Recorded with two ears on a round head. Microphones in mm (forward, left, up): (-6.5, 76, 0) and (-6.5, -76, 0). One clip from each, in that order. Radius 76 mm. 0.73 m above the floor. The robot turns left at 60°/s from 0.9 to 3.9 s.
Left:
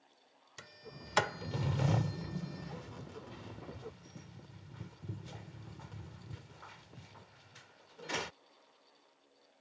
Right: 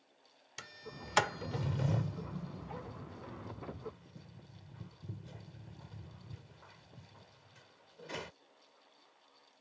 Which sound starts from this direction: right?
A sliding door, at 0.6 s.